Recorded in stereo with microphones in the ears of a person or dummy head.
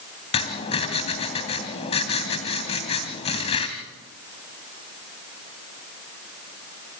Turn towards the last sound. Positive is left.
turn(degrees=35)  # may be behind; listen again after turning